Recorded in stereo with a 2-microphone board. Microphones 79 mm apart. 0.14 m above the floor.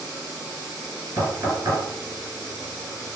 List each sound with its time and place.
1.2 s knocking: 55° right (ahead or behind), 1.9 m